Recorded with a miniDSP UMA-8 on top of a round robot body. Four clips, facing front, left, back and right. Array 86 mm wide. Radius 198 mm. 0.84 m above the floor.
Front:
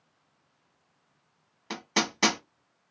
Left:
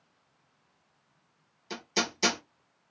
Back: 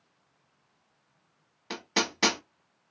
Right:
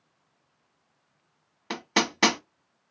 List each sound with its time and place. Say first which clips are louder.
1.7 s hammering: right 6 dB, front 1 dB; 85° right, 0.8 m